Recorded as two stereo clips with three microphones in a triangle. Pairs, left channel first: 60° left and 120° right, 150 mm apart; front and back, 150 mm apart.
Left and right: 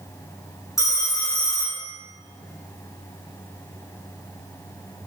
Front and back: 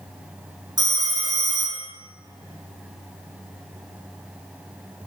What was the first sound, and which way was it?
A phone ringing, 125° left.